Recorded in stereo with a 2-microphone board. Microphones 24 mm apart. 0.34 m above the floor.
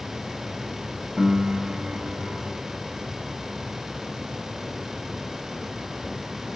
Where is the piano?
45° right (ahead or behind), 1.7 m.